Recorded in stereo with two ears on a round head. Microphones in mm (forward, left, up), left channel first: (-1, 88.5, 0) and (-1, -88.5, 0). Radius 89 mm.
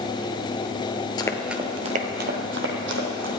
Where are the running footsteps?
20° left (ahead or behind), 1.0 m; by 3.3 s 70° right (ahead or behind), 3 m.